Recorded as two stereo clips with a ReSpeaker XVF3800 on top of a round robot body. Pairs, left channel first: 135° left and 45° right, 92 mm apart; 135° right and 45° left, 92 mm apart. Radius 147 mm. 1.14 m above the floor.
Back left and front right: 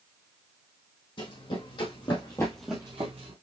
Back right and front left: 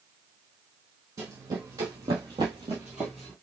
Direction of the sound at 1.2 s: 105° left.